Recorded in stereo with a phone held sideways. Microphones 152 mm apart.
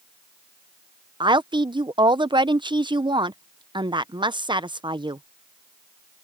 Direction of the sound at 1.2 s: 30° right (ahead or behind).